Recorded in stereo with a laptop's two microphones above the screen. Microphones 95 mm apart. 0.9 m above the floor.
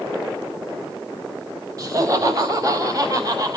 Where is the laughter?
40° right (ahead or behind), 5 m.